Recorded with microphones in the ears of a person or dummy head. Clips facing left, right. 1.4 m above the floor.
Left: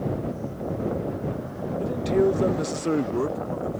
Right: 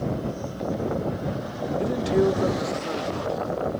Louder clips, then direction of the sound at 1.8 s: Even; 20° right (ahead or behind).